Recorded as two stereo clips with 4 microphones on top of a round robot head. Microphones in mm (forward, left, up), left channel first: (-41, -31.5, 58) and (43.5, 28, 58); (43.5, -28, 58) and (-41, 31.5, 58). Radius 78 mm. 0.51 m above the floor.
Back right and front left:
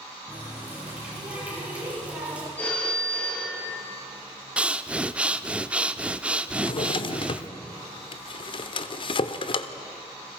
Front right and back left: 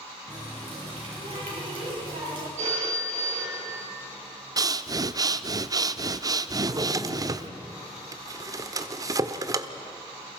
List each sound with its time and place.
0.3 s a running tap: 110° left, 9.5 m
2.6 s a phone ringing: 140° left, 8 m
4.6 s breathing: 110° left, 0.9 m
6.5 s a drawer: 165° right, 1.0 m